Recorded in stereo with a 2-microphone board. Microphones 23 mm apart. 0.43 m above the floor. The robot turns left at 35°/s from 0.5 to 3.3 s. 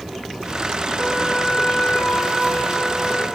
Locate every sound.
1.0 s a trumpet: 145° left, 1.8 m; by 3.3 s 65° left, 1.8 m